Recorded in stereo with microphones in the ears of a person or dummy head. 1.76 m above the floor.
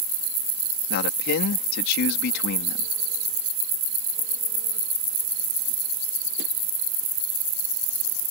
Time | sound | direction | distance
0.9 | a man speaking | 55° left (ahead or behind) | ?